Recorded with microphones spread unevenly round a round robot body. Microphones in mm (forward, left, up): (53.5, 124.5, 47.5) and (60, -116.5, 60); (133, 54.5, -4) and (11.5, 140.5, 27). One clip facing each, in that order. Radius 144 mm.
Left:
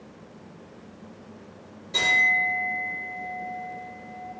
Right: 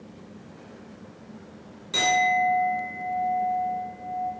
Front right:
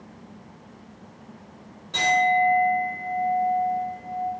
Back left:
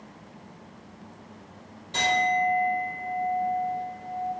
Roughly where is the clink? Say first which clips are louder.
Right 8 dB, front right 4 dB; right.